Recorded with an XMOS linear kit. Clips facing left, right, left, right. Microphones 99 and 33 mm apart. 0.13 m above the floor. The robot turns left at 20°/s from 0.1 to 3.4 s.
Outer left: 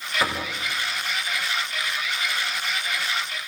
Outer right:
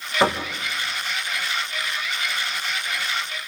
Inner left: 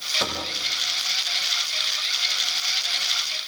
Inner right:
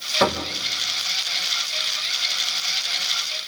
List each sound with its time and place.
0.2 s knocking: 25° right (ahead or behind), 4 m; by 0.5 s 30° right (ahead or behind), 4 m